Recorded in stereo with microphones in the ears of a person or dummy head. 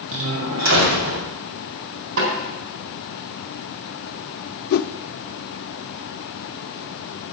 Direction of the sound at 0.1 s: 75° right (ahead or behind).